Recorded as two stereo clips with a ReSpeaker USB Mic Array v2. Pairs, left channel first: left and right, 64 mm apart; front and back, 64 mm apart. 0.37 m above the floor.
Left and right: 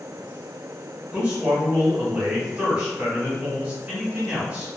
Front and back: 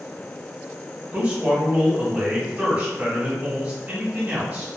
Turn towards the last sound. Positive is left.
turn(degrees=-145)